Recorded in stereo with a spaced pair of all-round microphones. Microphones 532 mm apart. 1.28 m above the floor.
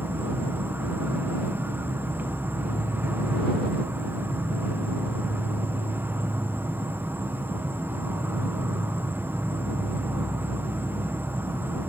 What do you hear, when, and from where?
0.0 s an insect: 5° right (ahead or behind)